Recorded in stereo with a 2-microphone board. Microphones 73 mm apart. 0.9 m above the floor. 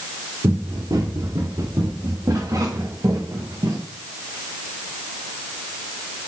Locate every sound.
0.4 s running footsteps: 55° right (ahead or behind), 7.5 m; by 3.8 s 60° right (ahead or behind), 5 m